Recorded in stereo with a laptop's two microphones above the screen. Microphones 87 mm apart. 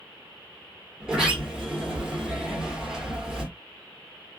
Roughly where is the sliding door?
Centre.